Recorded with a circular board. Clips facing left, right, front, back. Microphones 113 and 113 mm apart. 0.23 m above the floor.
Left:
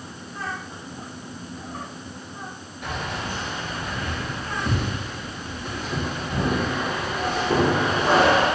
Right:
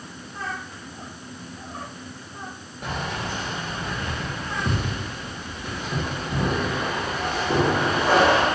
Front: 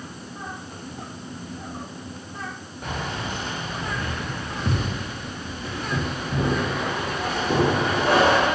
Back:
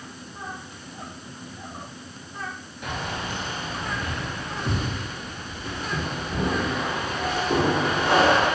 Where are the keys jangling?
45° right, 2 m; by 8.4 s 5° right, 5.5 m.